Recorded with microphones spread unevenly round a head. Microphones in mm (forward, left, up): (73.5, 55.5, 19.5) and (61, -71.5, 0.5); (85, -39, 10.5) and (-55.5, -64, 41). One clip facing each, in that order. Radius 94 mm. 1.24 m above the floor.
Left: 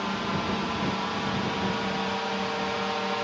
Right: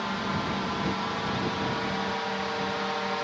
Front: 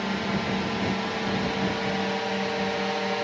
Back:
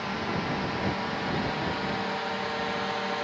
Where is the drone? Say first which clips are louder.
Left 1 dB, front 3 dB; straight ahead; by 3.3 s 5° left.